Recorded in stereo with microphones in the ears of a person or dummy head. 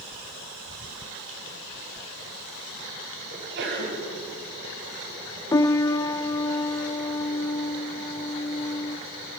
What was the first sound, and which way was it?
A sneeze, 60° right (ahead or behind).